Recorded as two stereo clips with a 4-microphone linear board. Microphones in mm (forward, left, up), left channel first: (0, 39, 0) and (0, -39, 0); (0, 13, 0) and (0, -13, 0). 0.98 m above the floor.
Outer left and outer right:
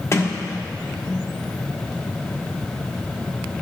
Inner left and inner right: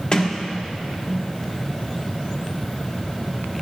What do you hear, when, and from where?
0.1 s a sliding door: 35° left (ahead or behind), 1.2 m